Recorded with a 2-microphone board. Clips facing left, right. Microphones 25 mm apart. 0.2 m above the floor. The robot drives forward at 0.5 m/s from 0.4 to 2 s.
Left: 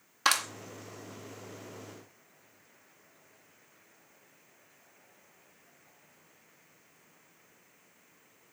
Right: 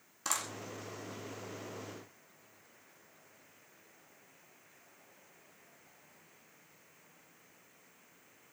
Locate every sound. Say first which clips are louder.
0.2 s a clap: left 10 dB; 55° left (ahead or behind), 2 m